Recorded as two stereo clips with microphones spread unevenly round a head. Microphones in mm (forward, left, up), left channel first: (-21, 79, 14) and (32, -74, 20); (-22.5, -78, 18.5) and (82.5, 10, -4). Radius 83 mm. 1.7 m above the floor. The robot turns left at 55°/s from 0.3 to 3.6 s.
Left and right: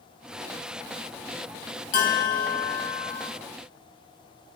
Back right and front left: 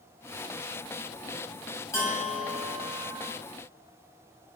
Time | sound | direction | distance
1.9 | a bell | 155° left | 0.6 m